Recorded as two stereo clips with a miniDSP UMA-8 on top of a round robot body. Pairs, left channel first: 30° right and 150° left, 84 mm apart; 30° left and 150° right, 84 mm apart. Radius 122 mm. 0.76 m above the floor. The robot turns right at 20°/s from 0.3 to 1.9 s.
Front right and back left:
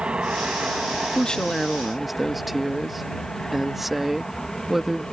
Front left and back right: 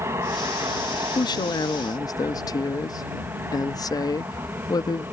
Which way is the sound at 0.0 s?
140° right.